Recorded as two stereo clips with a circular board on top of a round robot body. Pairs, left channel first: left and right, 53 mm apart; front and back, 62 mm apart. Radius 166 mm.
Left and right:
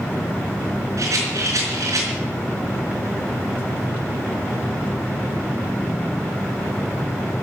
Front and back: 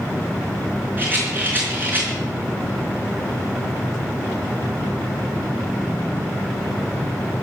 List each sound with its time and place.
1.0 s a rattle: 120° right, 4.5 m